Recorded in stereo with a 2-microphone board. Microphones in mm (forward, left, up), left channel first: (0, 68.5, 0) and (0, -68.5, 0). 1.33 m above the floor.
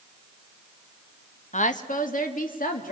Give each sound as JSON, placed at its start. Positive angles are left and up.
{"t": 1.5, "sound": "a woman speaking", "side_deg": 60, "distance_m": 1.1}